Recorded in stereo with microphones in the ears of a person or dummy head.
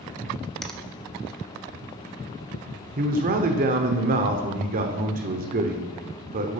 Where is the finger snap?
Centre (ahead or behind), 0.6 m.